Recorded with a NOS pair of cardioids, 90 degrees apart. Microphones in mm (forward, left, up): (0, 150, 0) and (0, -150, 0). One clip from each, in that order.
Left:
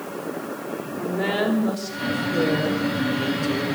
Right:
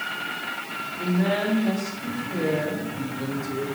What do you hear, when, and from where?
1.0 s a woman speaking: 45° left, 3.5 m; by 3.6 s 50° left, 1.8 m